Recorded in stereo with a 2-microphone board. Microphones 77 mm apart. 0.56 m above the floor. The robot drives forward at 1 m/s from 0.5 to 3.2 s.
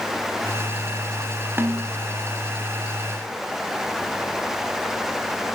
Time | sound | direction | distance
1.6 | a snare drum | 30° right (ahead or behind) | 1.1 m